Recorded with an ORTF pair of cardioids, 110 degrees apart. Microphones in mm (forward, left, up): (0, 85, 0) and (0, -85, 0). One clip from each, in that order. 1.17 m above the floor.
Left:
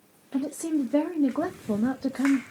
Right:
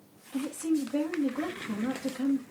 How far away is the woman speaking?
About 1.1 m.